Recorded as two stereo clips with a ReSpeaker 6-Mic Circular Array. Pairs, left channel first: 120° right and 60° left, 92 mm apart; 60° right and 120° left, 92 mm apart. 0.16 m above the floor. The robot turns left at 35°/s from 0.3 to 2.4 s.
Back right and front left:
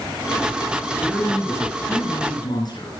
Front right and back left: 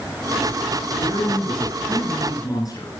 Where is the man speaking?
45° right, 1.8 m; by 2.9 s 95° right, 1.8 m.